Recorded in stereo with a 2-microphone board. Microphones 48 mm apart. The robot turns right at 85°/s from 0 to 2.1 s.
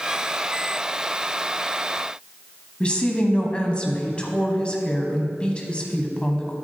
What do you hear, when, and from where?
2.8 s a woman speaking: 25° left (ahead or behind), 1.1 m